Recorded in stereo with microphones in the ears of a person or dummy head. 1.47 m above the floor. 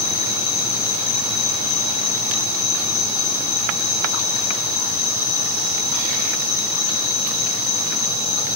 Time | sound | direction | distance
0.0 | an insect | 85° left | 7 m